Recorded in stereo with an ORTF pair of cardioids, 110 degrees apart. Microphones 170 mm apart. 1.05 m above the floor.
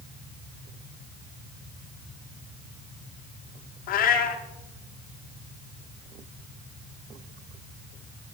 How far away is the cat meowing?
About 1.1 m.